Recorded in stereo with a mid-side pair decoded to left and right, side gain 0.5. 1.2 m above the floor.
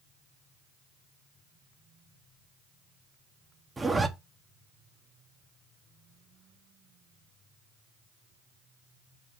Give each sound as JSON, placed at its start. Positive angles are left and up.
{"t": 3.8, "sound": "a zipper", "azimuth_deg": -20, "distance_m": 1.4}